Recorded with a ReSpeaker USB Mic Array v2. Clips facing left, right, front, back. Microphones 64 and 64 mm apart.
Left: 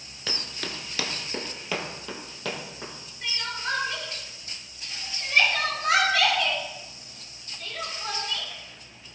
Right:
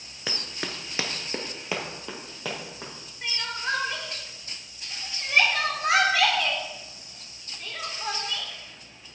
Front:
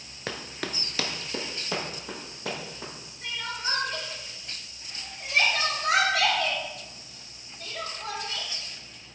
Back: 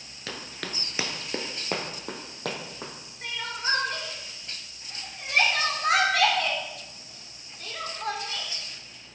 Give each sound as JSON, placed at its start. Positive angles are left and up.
{"t": 0.3, "sound": "running footsteps", "azimuth_deg": -35, "distance_m": 1.1}
{"t": 3.2, "sound": "crying", "azimuth_deg": -155, "distance_m": 1.8}